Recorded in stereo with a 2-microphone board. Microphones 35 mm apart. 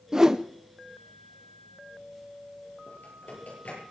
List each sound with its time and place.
0.1 s a whoosh: 15° right (ahead or behind), 0.6 m
2.9 s typing on a keyboard: 50° left (ahead or behind), 8.5 m